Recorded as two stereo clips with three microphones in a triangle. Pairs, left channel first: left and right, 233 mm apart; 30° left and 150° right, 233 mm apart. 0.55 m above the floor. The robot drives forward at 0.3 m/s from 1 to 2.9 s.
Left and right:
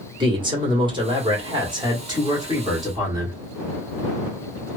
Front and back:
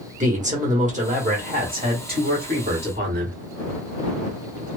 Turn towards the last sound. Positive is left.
turn(degrees=-160)